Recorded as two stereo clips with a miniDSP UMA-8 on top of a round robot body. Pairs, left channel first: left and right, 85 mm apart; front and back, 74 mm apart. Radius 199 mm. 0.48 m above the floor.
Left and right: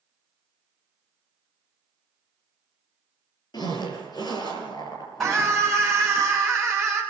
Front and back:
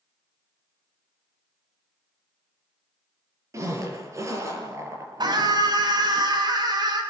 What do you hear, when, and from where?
3.5 s a zipper: 130° left, 7 m
5.2 s a scream: straight behind, 5 m